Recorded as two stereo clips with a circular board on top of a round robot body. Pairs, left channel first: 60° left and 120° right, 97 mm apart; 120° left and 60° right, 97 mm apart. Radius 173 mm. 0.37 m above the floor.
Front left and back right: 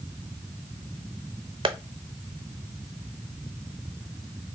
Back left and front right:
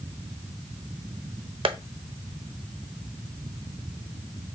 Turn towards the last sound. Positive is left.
turn(degrees=-90)